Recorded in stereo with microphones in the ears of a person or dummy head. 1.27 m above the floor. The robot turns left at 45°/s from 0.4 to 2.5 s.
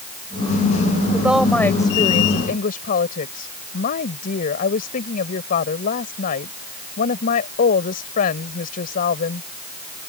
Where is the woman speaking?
165° right; by 9.5 s 130° left.